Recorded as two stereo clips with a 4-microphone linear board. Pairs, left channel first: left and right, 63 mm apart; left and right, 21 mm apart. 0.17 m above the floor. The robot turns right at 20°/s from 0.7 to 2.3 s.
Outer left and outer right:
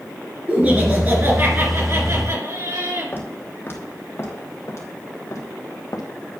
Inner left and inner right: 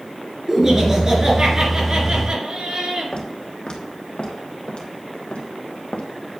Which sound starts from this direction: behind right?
Laughter, at 0.5 s.